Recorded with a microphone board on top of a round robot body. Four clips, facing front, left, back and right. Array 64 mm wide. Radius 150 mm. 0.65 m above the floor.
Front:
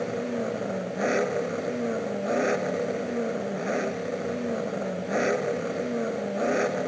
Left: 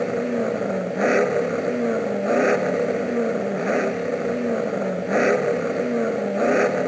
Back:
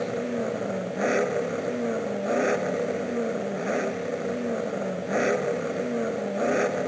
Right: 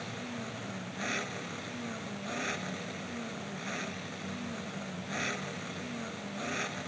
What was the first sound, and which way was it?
An engine running, 95° left.